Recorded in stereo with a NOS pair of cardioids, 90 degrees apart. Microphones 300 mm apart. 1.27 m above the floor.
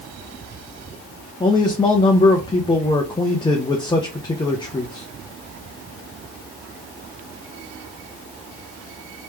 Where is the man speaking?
15° left, 0.8 m.